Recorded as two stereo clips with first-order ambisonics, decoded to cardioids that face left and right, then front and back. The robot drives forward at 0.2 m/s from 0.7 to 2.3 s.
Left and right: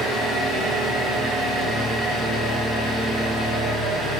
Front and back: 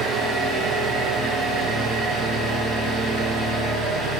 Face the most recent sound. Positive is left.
turn(degrees=-160)